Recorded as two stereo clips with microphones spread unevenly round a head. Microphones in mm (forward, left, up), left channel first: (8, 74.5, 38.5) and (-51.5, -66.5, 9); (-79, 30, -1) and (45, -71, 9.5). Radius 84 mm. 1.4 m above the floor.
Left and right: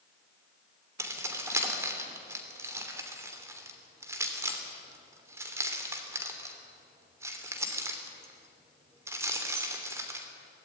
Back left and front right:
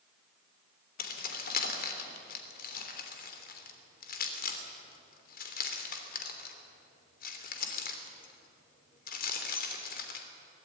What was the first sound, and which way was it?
Keys jangling, 170° left.